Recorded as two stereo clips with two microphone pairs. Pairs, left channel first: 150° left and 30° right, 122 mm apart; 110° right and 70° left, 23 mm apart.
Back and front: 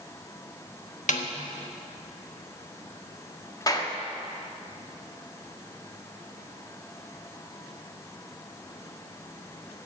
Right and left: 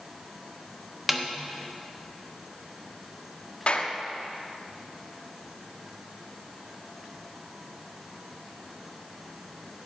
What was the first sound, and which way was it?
A snare drum, 145° left.